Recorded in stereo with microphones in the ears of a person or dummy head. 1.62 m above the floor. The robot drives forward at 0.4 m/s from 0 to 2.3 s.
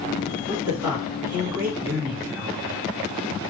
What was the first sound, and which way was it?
A man speaking, 15° right (ahead or behind).